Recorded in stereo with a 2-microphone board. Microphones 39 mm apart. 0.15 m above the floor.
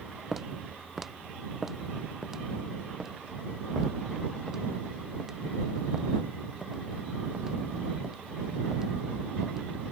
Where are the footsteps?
5° right (ahead or behind); by 9.6 s 15° right (ahead or behind).